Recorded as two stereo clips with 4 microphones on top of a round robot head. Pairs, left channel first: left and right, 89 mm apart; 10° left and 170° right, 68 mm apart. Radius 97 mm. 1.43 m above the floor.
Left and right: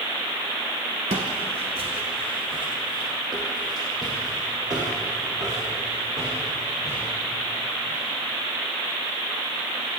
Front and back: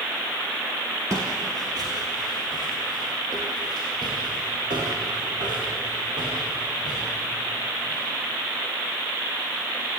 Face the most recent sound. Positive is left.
turn(degrees=-150)